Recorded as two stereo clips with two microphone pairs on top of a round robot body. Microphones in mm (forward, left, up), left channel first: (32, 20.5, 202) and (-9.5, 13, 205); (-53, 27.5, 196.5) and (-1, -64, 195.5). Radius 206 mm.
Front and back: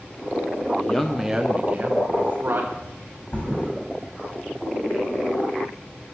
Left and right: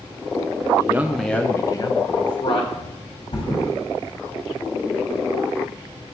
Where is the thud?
75° left, 4.5 m.